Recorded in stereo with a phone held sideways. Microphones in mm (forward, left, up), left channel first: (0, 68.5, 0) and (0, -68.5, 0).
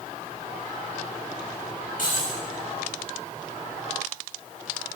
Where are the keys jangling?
70° left (ahead or behind), 4 m.